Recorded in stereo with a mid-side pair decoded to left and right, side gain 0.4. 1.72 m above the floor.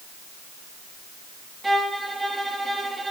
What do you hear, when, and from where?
1.6 s a violin: 20° right, 4 m